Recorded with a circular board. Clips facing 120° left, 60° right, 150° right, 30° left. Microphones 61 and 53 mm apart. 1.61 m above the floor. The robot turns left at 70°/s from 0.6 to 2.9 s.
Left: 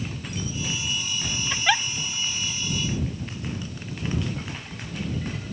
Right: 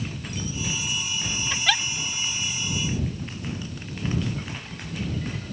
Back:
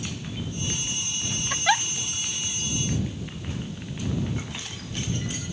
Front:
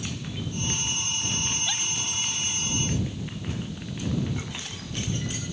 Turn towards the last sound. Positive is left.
turn(degrees=110)